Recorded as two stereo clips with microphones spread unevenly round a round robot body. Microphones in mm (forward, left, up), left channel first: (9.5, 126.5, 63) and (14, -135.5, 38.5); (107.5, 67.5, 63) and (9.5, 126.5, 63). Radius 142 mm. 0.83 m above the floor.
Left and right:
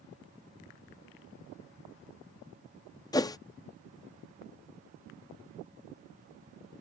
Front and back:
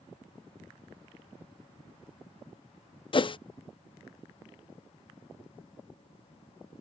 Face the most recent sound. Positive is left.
turn(degrees=15)